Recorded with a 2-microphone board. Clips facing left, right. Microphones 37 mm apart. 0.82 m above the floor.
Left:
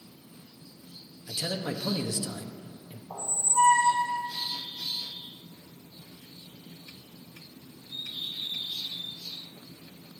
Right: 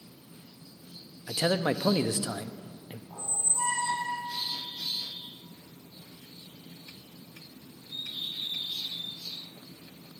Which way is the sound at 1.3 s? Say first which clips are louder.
Right 6 dB; 45° right (ahead or behind).